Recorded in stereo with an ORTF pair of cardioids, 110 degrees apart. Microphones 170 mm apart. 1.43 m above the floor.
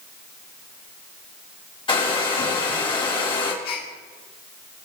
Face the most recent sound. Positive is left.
turn(degrees=70)